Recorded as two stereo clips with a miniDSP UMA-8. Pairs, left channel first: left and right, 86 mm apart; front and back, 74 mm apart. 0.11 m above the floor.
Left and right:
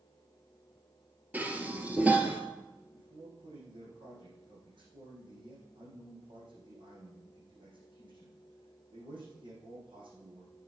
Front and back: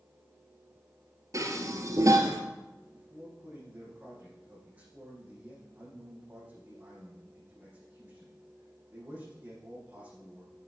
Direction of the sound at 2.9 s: 105° right.